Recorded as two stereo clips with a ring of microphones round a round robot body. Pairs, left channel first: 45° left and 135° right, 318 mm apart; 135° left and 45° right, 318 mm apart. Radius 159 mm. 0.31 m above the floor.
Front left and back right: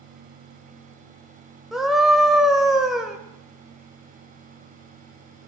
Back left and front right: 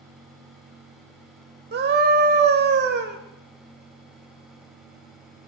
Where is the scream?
45° right, 1.1 m.